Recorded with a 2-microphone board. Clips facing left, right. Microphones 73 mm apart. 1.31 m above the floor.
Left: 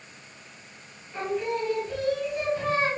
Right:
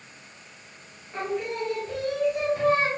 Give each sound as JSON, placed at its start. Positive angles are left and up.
{"t": 1.1, "sound": "singing", "side_deg": -60, "distance_m": 1.5}